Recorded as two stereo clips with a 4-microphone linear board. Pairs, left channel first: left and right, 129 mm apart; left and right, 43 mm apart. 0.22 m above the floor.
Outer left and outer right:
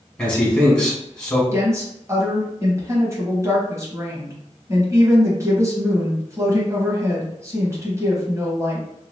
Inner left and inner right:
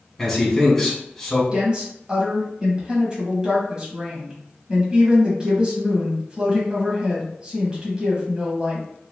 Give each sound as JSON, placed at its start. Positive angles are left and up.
{"t": 0.2, "sound": "a man speaking", "side_deg": 10, "distance_m": 1.6}
{"t": 1.5, "sound": "a woman speaking", "side_deg": -25, "distance_m": 1.2}